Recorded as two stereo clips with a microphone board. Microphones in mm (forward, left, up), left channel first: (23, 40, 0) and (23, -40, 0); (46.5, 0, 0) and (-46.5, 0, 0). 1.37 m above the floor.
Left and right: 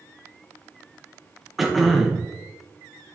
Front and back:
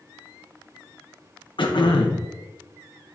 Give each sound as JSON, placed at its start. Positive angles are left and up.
{"t": 1.6, "sound": "throat clearing", "azimuth_deg": 0, "distance_m": 0.9}